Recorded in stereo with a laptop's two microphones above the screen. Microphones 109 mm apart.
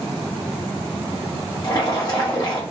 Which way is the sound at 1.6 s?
40° left (ahead or behind).